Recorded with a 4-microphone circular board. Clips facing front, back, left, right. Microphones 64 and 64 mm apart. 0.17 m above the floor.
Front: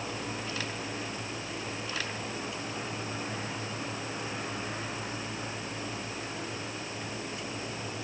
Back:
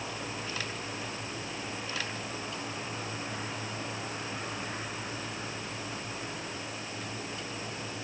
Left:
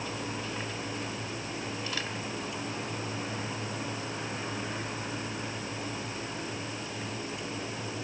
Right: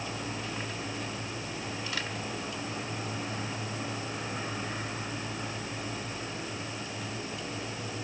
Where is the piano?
No piano in this recording.